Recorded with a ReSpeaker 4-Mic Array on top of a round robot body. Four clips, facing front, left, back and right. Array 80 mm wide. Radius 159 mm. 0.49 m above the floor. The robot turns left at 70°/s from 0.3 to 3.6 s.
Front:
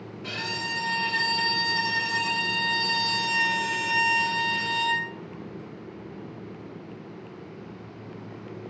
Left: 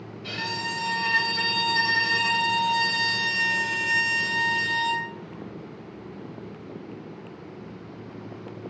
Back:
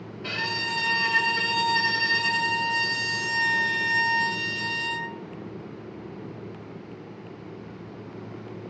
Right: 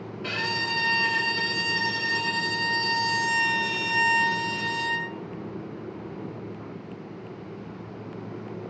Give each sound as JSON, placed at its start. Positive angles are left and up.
{"t": 0.2, "sound": "a violin", "azimuth_deg": -110, "distance_m": 1.9}